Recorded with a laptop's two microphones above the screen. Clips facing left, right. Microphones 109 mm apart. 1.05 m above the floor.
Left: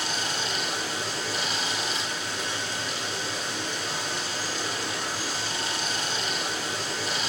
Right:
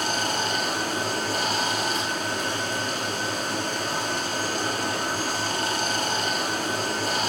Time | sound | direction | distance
0.0 | running water | 50° right (ahead or behind) | 2 m